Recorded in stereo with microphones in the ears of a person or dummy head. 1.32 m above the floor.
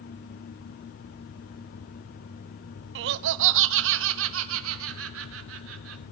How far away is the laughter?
About 0.6 m.